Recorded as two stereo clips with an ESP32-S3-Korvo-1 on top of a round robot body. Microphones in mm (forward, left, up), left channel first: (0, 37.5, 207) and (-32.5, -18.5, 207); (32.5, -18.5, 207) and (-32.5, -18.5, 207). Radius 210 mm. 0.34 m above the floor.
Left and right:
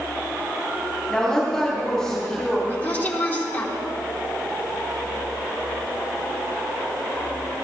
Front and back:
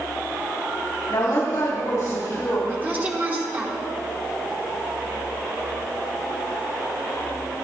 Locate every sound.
1.1 s a woman speaking: 20° right, 3 m
2.7 s a woman speaking: 120° left, 3 m